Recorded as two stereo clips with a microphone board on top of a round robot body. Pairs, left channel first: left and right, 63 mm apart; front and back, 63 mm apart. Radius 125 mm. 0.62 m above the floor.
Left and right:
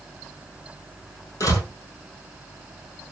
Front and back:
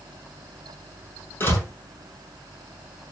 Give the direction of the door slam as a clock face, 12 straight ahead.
10 o'clock.